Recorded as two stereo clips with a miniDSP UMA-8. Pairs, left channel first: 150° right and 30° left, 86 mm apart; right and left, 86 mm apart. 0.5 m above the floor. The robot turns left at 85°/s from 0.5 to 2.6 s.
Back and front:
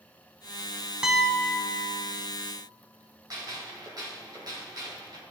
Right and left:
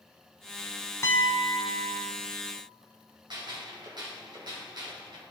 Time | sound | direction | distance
1.0 | a piano | 45° right | 0.9 m
3.3 | a gunshot | 65° left | 2.5 m